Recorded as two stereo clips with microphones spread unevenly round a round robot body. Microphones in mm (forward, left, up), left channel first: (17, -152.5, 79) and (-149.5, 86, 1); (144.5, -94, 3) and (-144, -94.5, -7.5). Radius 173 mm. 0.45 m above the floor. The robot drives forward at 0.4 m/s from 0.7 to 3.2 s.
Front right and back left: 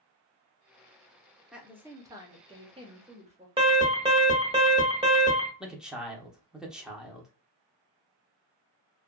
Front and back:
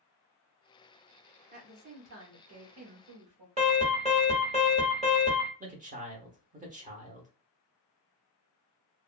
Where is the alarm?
135° left, 1.3 m.